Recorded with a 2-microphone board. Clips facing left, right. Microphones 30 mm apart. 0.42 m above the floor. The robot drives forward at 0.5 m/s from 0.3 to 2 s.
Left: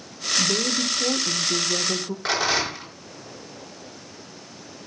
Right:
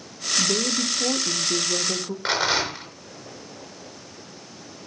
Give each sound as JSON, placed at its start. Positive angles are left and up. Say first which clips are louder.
{"t": 0.4, "sound": "a woman speaking", "louder": "even", "side_deg": -5, "distance_m": 0.8}
{"t": 2.2, "sound": "a rattle", "louder": "even", "side_deg": -10, "distance_m": 4.5}